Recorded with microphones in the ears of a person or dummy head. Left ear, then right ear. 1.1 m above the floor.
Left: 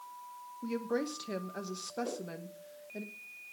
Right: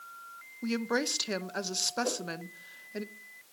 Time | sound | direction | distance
0.6 | a woman speaking | 35° right (ahead or behind) | 0.9 m
2.0 | a whoosh | 30° right (ahead or behind) | 1.8 m